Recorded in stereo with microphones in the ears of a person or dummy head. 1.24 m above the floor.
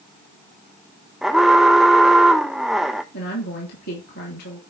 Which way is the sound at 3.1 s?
55° left (ahead or behind).